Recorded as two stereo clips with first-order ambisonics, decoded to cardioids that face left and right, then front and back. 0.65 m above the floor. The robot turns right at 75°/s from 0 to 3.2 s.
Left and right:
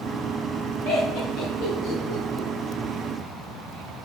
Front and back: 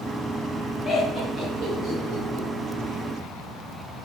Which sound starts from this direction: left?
Laughter, at 0.8 s.